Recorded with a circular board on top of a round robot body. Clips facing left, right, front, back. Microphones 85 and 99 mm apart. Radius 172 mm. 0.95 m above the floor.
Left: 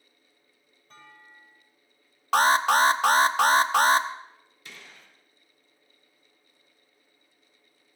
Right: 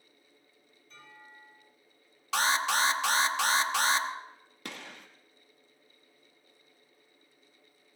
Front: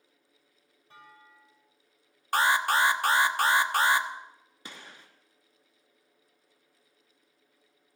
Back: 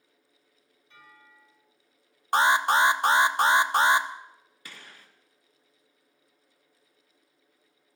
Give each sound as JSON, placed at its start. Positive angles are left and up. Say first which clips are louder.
{"t": 0.9, "sound": "a clunk", "louder": "left 2 dB, front 2 dB", "azimuth_deg": 50, "distance_m": 7.5}
{"t": 2.3, "sound": "an alarm", "louder": "left 8 dB, back 3 dB", "azimuth_deg": 115, "distance_m": 1.1}
{"t": 4.7, "sound": "a gunshot", "louder": "right 5 dB, front 2 dB", "azimuth_deg": -65, "distance_m": 1.8}